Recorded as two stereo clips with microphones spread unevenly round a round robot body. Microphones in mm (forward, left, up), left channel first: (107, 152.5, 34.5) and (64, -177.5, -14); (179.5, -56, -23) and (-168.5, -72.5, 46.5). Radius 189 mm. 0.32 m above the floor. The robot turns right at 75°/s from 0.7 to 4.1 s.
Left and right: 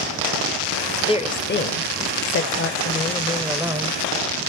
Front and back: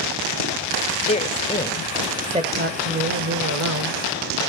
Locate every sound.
1.1 s a woman speaking: 5° left, 0.9 m; by 4.0 s 135° right, 0.9 m